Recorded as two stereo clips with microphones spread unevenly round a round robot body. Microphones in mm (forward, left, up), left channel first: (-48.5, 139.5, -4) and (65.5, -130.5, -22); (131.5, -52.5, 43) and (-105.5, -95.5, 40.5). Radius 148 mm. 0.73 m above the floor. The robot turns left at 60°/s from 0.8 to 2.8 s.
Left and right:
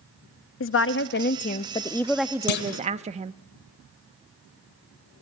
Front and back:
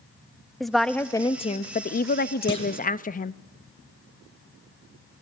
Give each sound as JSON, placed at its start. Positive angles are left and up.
{"t": 0.6, "sound": "a woman speaking", "azimuth_deg": 100, "distance_m": 0.5}
{"t": 2.5, "sound": "a clunk", "azimuth_deg": 85, "distance_m": 1.2}